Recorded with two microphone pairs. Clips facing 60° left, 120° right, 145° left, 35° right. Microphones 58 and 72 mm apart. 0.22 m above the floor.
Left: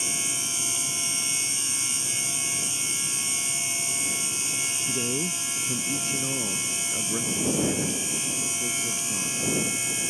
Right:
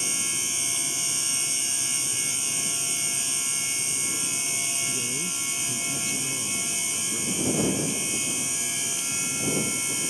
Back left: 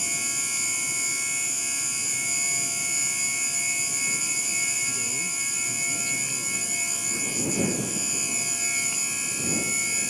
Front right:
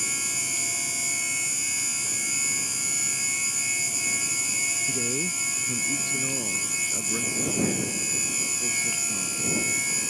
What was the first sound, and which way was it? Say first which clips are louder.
A man speaking: left 4 dB, front right 4 dB; 10° left.